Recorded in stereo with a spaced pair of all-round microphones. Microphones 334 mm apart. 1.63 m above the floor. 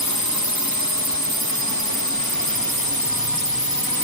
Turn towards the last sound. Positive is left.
turn(degrees=75)  # may be behind; listen again after turning